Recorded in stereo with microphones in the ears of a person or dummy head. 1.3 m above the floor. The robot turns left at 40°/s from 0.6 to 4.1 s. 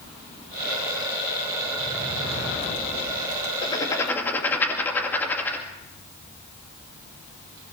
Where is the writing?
30° left (ahead or behind), 2 m; by 5.7 s 10° left (ahead or behind), 2 m.